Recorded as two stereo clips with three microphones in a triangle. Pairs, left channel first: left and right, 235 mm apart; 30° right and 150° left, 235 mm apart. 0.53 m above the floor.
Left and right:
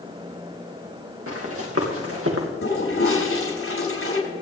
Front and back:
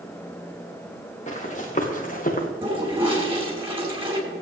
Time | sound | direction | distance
1.3 | running footsteps | 90° right | 3 m
2.6 | a toilet flushing | 85° left | 6 m